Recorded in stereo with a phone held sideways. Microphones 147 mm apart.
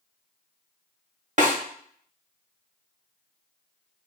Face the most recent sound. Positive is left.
turn(degrees=-55)  # may be behind; listen again after turning